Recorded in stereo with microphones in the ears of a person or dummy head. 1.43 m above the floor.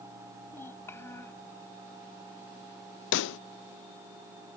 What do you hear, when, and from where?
0.5 s a child speaking: 20° left (ahead or behind)
3.1 s a pop: 75° left (ahead or behind)